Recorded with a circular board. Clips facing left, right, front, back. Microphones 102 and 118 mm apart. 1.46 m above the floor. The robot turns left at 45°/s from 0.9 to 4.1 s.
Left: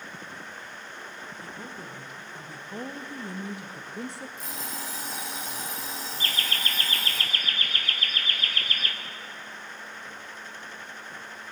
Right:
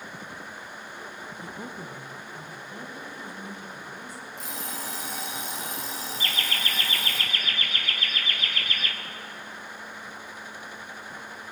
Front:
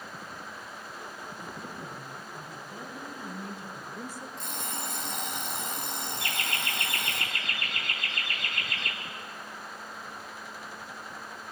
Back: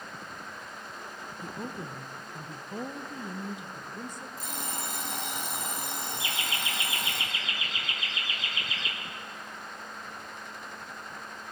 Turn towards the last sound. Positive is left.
turn(degrees=35)